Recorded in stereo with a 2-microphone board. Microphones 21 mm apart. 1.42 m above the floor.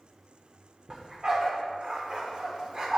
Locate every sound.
0.9 s a dog barking: 35° right (ahead or behind), 1.3 m